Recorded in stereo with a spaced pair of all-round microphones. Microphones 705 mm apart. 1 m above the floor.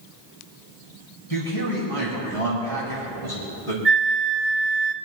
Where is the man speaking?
45° left (ahead or behind), 6 m; by 3.8 s 65° left (ahead or behind), 4.5 m.